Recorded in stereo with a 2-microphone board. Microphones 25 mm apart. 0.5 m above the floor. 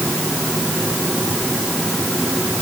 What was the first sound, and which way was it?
Only background noise.